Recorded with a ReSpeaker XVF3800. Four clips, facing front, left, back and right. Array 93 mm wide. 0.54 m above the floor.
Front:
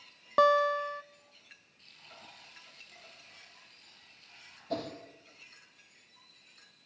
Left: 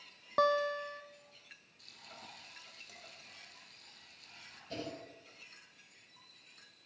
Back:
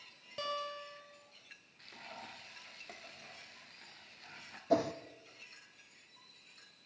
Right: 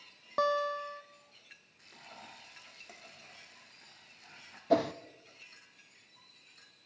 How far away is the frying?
About 3 m.